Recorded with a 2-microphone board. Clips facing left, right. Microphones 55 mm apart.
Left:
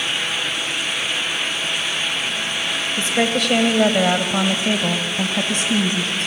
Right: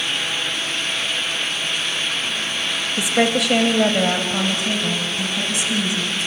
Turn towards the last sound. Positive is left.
turn(degrees=55)  # may be behind; listen again after turning